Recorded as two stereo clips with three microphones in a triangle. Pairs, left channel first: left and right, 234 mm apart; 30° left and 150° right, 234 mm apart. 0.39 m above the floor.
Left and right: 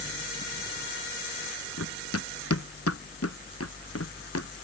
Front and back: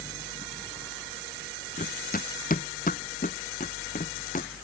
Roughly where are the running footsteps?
Left.